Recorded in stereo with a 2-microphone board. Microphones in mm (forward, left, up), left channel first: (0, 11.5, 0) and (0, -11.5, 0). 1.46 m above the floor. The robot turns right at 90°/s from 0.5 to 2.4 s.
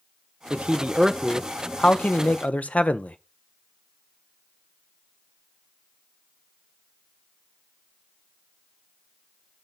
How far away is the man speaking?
About 0.6 m.